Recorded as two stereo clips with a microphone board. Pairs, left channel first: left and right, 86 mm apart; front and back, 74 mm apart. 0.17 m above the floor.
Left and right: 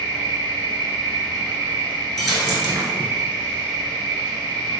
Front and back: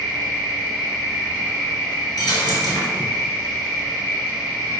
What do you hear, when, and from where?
0.0 s an insect: 65° left, 1.0 m
2.2 s a dropped coin: straight ahead, 0.7 m